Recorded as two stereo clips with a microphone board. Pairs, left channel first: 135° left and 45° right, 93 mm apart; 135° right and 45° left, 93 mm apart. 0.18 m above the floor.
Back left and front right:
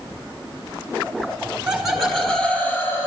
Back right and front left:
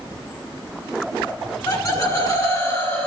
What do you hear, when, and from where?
1.7 s laughter: 125° right, 1.8 m; by 3.1 s 175° left, 1.7 m